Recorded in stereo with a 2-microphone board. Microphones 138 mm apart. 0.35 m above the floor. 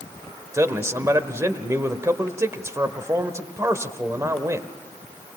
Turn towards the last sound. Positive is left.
turn(degrees=-20)  # may be behind; listen again after turning